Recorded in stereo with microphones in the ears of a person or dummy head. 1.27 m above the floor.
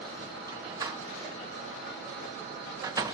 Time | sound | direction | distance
0.5 | a door slam | 15° right (ahead or behind) | 0.8 m